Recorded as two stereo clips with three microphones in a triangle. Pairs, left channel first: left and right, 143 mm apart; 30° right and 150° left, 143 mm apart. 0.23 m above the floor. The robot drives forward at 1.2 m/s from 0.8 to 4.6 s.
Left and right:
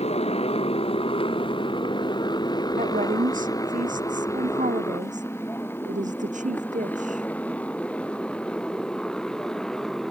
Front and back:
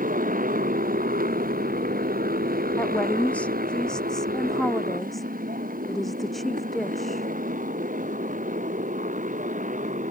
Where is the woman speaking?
105° right; by 7.3 s 120° right.